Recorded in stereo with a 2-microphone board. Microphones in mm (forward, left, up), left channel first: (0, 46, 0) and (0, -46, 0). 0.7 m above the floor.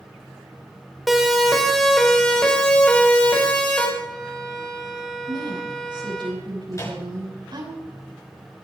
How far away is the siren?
About 4 m.